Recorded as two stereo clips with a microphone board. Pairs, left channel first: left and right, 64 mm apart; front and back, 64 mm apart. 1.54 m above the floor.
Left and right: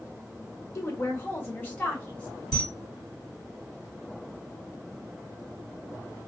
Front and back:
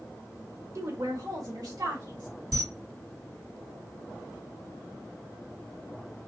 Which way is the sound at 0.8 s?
135° left.